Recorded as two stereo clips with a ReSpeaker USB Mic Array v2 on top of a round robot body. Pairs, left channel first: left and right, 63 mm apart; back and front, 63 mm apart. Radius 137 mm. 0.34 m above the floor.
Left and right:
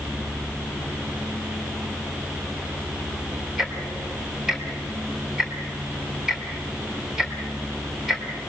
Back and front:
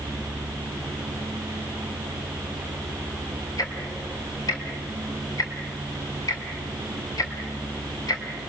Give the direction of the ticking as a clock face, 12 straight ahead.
6 o'clock.